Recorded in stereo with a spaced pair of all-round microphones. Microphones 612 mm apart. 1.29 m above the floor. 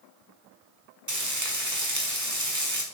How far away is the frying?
About 1.5 m.